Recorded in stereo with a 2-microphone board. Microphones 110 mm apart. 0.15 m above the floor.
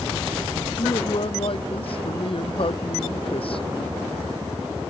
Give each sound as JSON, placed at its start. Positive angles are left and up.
{"t": 0.8, "sound": "a man speaking", "side_deg": 55}